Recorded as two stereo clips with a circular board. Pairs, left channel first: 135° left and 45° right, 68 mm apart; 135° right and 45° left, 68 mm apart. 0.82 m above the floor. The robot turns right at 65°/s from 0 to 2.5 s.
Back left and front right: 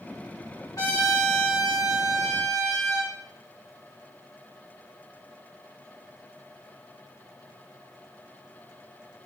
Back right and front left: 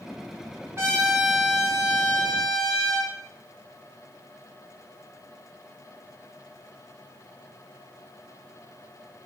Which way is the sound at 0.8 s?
100° left.